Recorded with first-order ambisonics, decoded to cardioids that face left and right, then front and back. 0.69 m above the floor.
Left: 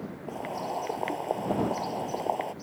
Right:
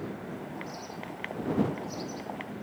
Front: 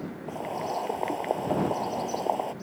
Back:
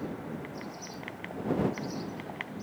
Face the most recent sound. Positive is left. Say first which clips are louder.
# left 7 dB, front 10 dB
turn(degrees=40)